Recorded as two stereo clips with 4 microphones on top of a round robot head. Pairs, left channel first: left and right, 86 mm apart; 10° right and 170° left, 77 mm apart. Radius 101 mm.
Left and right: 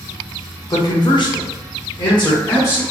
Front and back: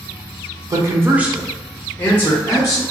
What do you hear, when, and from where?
0.7 s a man speaking: 135° left, 0.9 m; by 2.8 s 45° left, 1.6 m